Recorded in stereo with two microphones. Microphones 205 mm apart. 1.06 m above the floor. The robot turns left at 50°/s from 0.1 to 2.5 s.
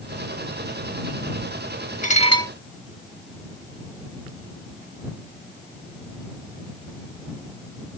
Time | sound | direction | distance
2.0 | dishes clattering | 40° left (ahead or behind) | ?